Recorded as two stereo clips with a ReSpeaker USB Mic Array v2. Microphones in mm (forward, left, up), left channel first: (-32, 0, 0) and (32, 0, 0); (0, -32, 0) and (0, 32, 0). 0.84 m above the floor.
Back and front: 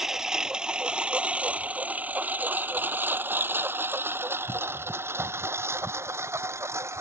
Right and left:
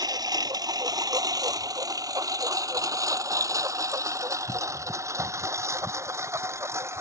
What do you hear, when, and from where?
0.0 s a lawn mower: 80° left; by 7.0 s 45° left